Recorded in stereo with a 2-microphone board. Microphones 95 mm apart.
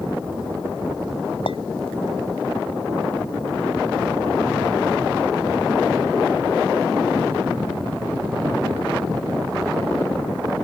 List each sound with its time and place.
1.5 s a clink: 70° left (ahead or behind)